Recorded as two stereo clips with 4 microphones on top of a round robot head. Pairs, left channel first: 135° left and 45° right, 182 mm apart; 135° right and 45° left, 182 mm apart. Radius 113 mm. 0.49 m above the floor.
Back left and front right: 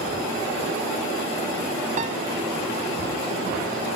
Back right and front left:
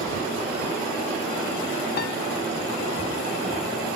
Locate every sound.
2.0 s a piano: 100° right, 0.6 m